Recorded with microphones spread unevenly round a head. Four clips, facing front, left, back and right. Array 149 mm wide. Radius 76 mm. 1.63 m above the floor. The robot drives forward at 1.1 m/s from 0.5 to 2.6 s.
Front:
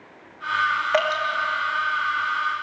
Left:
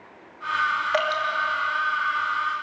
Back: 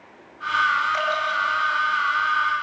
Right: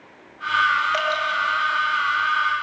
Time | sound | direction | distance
0.9 | dripping | 15° left | 3 m